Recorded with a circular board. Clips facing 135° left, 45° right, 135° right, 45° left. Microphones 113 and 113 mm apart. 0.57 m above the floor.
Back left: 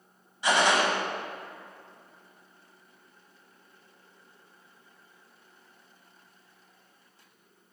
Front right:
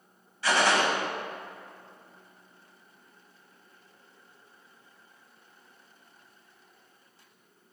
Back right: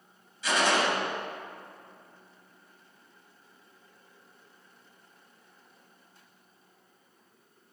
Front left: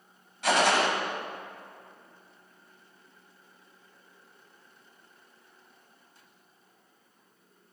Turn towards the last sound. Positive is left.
turn(degrees=65)